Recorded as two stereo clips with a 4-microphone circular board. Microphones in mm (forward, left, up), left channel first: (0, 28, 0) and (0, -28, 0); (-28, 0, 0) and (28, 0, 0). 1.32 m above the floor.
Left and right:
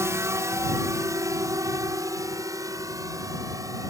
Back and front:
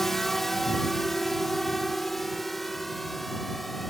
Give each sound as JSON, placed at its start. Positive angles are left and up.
{"t": 0.0, "sound": "a drone", "azimuth_deg": -95}